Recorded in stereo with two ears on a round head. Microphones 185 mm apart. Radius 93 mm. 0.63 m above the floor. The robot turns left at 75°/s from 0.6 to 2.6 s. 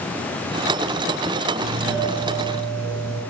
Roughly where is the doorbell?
Ahead right.